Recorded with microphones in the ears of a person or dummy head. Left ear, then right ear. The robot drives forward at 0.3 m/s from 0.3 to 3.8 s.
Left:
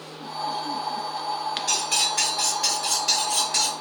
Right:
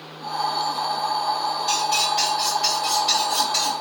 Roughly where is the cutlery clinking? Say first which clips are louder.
Right 2 dB; centre.